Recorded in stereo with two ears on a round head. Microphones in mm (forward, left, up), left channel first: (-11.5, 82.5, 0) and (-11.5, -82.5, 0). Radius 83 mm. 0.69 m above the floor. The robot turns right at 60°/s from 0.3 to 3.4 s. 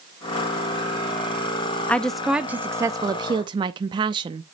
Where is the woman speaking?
10° left (ahead or behind), 0.5 m; by 4.5 s 25° right (ahead or behind), 0.5 m.